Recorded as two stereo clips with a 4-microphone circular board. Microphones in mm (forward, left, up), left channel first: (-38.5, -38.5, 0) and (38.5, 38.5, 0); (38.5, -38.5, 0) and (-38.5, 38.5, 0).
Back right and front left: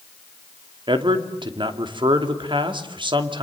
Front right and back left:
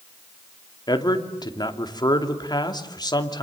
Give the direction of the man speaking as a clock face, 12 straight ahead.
12 o'clock.